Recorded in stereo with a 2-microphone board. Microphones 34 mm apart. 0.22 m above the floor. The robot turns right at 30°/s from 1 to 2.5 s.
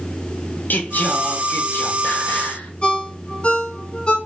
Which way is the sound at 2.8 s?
35° left (ahead or behind).